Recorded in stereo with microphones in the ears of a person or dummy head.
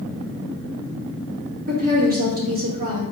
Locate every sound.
1.7 s a woman speaking: 55° right (ahead or behind), 1.1 m